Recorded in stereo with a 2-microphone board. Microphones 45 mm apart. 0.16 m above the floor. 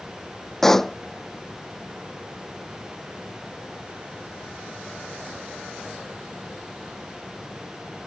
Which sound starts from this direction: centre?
A pop, at 0.6 s.